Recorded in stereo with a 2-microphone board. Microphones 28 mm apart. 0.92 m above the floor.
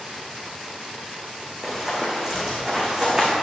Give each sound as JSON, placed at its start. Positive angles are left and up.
{"t": 1.6, "sound": "running footsteps", "side_deg": -15, "distance_m": 2.5}